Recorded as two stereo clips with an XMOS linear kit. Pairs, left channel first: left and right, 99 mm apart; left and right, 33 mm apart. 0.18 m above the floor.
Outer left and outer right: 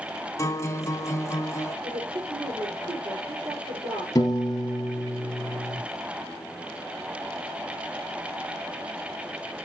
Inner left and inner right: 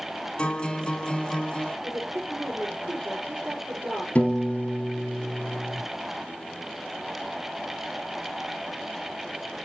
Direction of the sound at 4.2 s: 35° left (ahead or behind).